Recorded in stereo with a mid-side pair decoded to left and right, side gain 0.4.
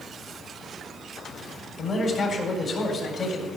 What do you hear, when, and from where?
1.8 s a man speaking: 60° left, 4 m